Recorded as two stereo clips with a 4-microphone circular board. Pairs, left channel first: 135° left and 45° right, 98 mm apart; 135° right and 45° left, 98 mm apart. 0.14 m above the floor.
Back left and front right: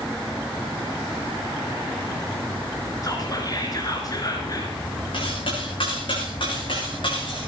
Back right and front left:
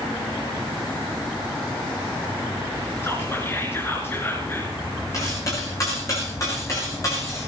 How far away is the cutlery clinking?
About 8 m.